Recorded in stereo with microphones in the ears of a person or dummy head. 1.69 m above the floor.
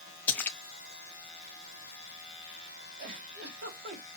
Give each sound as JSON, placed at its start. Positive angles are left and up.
{"t": 0.3, "sound": "a splash", "side_deg": 5, "distance_m": 0.6}
{"t": 3.0, "sound": "a giggle", "side_deg": -65, "distance_m": 3.0}